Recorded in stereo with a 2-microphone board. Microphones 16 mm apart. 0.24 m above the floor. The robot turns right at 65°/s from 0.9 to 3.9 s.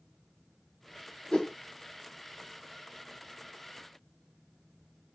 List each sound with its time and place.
1.3 s a whoosh: 50° left (ahead or behind), 0.9 m; by 1.5 s 45° left (ahead or behind), 0.9 m